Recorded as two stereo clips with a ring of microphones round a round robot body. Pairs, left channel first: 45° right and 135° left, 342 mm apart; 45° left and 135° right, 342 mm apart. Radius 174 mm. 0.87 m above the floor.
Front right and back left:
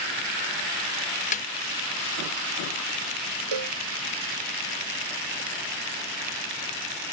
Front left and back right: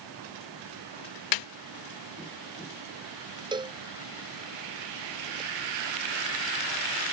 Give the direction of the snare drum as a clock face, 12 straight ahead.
11 o'clock.